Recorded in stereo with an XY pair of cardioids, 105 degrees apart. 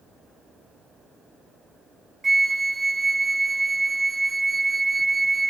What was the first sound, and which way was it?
A flute, 20° right.